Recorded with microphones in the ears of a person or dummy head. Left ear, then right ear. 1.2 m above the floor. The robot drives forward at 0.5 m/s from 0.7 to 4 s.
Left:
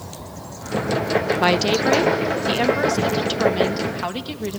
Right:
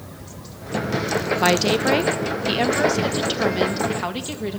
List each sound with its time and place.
1.4 s a woman speaking: 5° left (ahead or behind), 0.7 m; by 4.6 s centre (ahead or behind), 1.9 m